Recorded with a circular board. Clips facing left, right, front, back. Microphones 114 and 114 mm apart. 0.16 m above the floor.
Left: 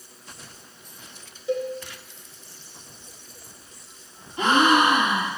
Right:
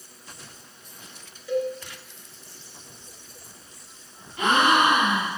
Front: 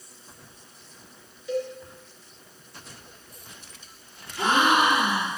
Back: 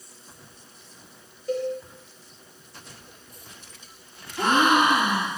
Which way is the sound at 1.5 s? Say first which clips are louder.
Right 1 dB, back 2 dB; 150° left.